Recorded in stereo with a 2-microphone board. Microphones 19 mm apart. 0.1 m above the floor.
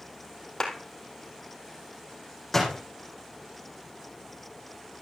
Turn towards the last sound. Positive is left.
turn(degrees=15)  # may be behind; listen again after turning